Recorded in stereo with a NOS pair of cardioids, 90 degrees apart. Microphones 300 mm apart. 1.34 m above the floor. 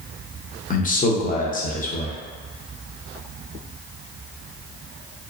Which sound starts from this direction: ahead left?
A man speaking, at 0.7 s.